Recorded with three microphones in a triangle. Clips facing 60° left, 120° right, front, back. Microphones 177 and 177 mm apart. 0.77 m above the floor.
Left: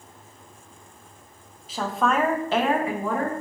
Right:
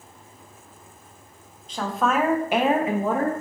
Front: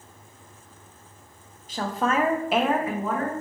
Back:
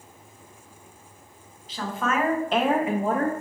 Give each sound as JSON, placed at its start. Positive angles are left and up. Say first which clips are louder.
{"t": 1.7, "sound": "a woman speaking", "louder": "even, front 2 dB", "azimuth_deg": -25, "distance_m": 0.8}